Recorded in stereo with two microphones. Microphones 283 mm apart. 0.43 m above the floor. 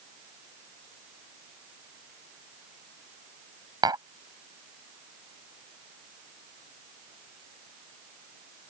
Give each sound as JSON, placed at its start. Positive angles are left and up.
{"t": 3.8, "sound": "tapping", "side_deg": -15}